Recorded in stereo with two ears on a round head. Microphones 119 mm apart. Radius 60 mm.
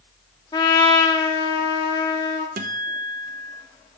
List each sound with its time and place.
0.5 s a trumpet: 35° left (ahead or behind), 1.6 m
2.6 s a guitar: 70° right (ahead or behind), 0.8 m